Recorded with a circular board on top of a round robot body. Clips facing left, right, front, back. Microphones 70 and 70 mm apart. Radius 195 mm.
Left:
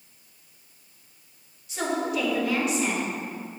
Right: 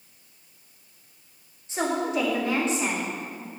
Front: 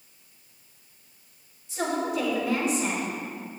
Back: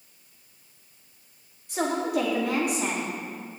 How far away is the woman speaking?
About 2.5 m.